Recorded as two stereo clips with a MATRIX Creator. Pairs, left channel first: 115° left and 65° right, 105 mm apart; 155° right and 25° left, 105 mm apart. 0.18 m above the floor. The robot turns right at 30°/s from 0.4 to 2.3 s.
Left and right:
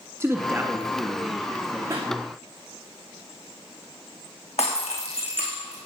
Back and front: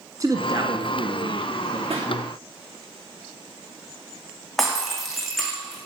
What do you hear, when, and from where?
0.2 s a man speaking: 15° right, 1.4 m; by 1.8 s 30° left, 1.4 m
1.9 s a pop: 5° right, 3 m; by 2.1 s 5° left, 3 m
4.6 s breaking glass: 115° left, 4 m